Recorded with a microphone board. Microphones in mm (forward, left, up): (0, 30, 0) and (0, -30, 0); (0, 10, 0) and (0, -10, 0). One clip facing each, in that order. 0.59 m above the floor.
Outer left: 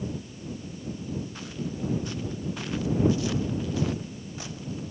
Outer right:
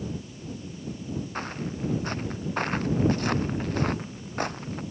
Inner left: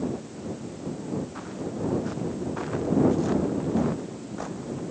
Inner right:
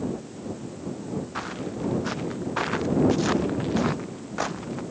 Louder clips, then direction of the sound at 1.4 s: Outer right 2 dB, inner right 1 dB; 45° right (ahead or behind).